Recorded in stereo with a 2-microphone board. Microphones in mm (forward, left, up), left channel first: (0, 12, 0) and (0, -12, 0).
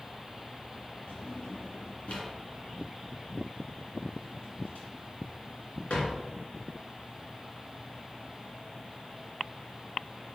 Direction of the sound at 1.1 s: 75° left (ahead or behind).